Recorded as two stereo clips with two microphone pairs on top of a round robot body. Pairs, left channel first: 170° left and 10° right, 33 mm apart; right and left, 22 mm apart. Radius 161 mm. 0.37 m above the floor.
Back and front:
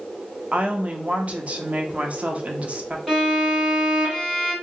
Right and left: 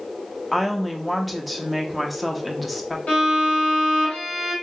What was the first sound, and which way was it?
A woman speaking, 10° left.